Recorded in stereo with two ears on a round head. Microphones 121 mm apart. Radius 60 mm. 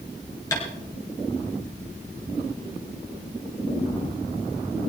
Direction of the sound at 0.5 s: 25° left (ahead or behind).